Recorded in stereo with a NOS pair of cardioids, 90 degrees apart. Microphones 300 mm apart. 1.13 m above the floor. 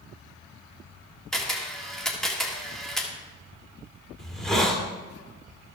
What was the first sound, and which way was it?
A camera shutter, straight ahead.